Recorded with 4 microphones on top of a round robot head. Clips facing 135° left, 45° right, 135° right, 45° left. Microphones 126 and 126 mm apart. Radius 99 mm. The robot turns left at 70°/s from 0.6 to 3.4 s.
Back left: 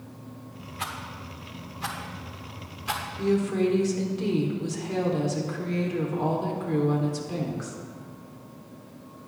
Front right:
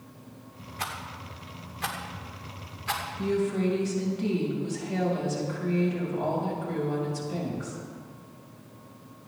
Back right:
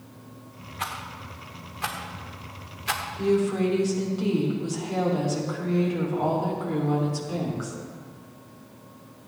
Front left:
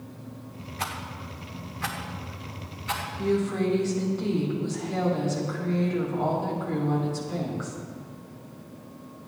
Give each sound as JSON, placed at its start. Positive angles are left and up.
{"t": 0.8, "sound": "a rattle", "azimuth_deg": 0, "distance_m": 1.1}
{"t": 3.2, "sound": "a woman speaking", "azimuth_deg": 160, "distance_m": 4.0}